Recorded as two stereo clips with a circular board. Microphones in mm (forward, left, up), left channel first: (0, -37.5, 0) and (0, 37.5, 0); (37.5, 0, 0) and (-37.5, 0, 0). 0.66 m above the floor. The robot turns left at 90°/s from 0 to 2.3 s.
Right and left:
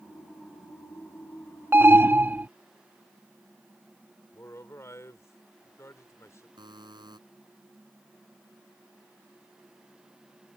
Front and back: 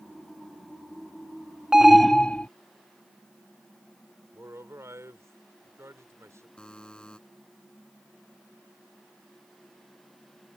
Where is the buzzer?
80° left.